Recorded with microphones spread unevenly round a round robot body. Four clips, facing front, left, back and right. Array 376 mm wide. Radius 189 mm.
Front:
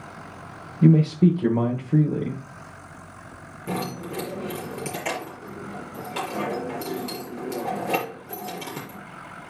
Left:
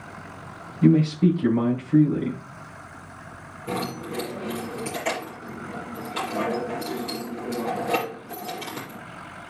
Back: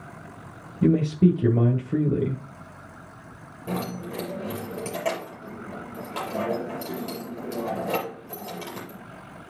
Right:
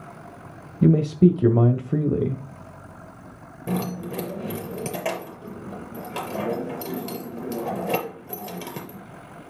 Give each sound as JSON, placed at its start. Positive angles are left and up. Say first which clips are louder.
{"t": 0.8, "sound": "a man speaking", "louder": "right 1 dB, front 2 dB", "azimuth_deg": -105, "distance_m": 1.7}
{"t": 3.7, "sound": "keys jangling", "louder": "right 1 dB, front 1 dB", "azimuth_deg": -85, "distance_m": 4.5}